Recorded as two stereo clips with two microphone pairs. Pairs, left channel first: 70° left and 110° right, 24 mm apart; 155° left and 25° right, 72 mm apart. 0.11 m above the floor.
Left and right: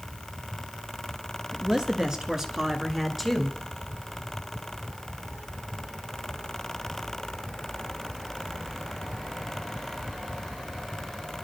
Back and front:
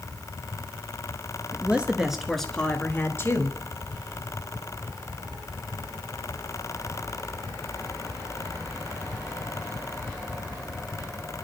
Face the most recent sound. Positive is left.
turn(degrees=155)